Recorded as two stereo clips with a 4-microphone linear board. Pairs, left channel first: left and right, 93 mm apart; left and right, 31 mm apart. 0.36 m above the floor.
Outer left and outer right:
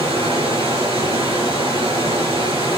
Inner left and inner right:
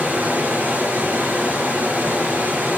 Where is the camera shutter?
No camera shutter in this recording.